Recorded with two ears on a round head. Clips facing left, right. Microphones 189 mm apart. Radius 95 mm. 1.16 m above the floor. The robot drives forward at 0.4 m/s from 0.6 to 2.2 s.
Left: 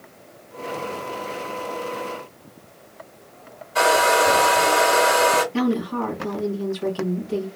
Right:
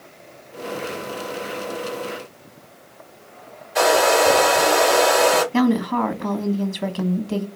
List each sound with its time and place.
3.8 s a hair dryer: 15° right (ahead or behind), 1.9 m
5.5 s a woman speaking: 65° right (ahead or behind), 1.1 m